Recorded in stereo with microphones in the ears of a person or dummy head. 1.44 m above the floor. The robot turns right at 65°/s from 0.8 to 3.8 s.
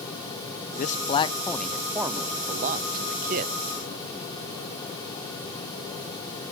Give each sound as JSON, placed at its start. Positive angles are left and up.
{"t": 0.8, "sound": "a man speaking", "azimuth_deg": 120, "distance_m": 0.5}